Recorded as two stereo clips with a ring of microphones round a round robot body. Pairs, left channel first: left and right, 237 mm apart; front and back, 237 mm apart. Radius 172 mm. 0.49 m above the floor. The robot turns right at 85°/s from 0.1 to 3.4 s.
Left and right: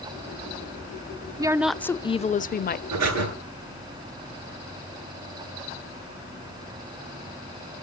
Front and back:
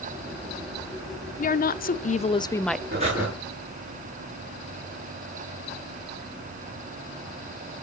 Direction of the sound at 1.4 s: 25° right.